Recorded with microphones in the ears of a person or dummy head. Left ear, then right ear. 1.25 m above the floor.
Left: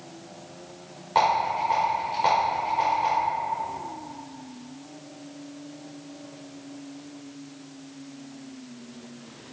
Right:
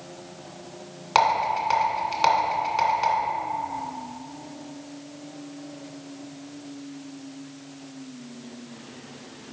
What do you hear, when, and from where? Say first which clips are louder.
1.1 s a rattle: right 1 dB; 55° right (ahead or behind), 2 m